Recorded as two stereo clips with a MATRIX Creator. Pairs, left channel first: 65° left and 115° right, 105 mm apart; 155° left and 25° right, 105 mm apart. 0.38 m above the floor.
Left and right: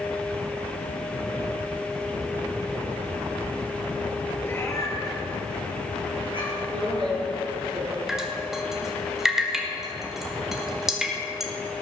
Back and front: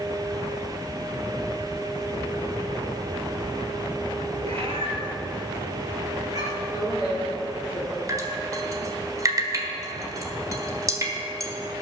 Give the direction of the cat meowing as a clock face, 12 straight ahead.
12 o'clock.